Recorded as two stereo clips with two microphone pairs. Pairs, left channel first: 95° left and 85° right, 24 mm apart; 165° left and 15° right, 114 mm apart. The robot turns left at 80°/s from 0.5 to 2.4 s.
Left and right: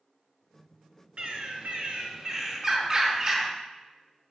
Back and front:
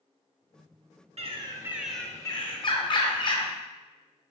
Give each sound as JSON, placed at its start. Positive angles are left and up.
{"t": 1.2, "sound": "a bird", "azimuth_deg": -50, "distance_m": 0.5}